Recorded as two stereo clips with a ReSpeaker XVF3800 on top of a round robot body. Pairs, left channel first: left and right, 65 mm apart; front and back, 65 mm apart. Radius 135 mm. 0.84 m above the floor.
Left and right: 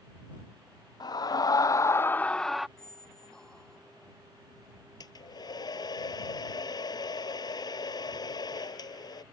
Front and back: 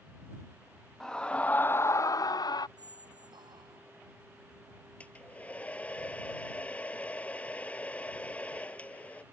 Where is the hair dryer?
75° left.